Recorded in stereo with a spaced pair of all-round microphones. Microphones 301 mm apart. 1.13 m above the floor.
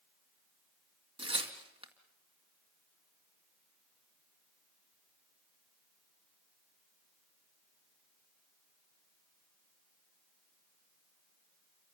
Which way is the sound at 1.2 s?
20° right (ahead or behind).